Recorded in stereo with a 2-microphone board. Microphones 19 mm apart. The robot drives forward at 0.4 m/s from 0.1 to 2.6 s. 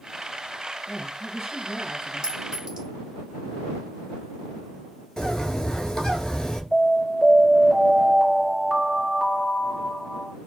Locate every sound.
0.9 s a woman speaking: 10° right (ahead or behind), 1.6 m
2.2 s a clink: 40° right (ahead or behind), 1.1 m
5.2 s a bird: 25° left (ahead or behind), 1.1 m
6.7 s an alarm: 25° right (ahead or behind), 1.7 m